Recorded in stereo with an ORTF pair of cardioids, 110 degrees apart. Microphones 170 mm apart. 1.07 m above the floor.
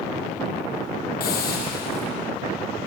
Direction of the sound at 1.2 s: 65° left.